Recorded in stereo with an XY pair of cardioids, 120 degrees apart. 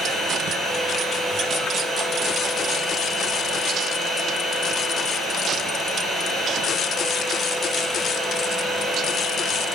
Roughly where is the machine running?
Ahead.